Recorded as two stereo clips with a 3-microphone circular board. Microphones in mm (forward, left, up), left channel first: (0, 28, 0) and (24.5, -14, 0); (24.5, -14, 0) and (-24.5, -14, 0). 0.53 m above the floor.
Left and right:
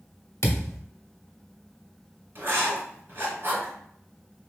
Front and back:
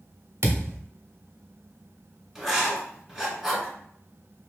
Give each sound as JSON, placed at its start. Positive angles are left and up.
{"t": 0.4, "sound": "a thud", "azimuth_deg": 145, "distance_m": 0.7}
{"t": 2.4, "sound": "writing", "azimuth_deg": -100, "distance_m": 1.4}